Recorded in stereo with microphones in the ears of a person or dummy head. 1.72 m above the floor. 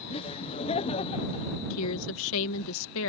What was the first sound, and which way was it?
Laughter, 30° left (ahead or behind).